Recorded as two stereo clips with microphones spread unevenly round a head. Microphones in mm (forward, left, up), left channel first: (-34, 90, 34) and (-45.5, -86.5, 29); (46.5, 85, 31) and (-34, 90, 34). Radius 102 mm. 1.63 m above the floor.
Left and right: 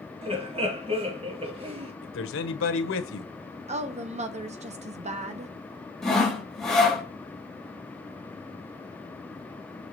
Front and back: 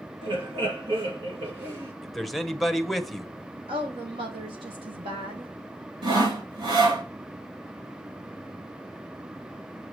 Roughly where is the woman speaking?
Behind right.